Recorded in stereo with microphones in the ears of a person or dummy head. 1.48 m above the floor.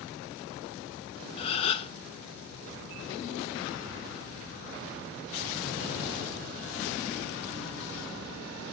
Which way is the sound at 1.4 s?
30° left (ahead or behind).